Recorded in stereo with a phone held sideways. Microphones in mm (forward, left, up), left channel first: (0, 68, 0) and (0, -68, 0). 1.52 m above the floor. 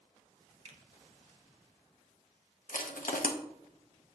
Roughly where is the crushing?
Left.